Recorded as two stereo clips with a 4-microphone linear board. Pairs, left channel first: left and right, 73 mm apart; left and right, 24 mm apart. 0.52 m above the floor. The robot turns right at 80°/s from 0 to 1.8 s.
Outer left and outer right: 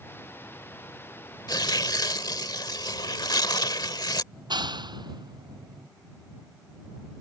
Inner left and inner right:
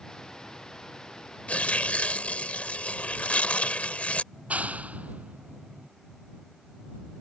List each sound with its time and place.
1.5 s tearing paper: 65° left (ahead or behind); by 4.2 s 70° left (ahead or behind)
4.3 s a clap: 80° right